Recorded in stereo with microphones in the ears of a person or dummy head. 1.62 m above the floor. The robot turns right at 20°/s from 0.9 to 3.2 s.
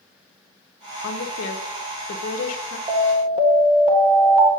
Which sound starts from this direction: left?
A woman speaking, at 1.0 s.